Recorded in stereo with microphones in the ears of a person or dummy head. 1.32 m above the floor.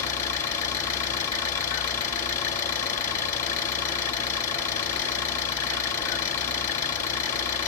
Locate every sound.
0.0 s an engine running: 15° left (ahead or behind), 4.5 m